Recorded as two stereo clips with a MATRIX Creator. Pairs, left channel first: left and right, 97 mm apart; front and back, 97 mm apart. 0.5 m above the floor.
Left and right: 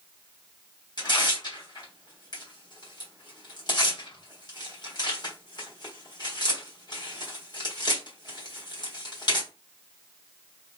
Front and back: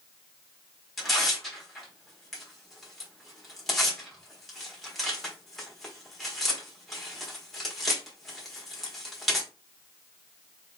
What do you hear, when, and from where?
1.0 s tearing paper: 90° left, 1.3 m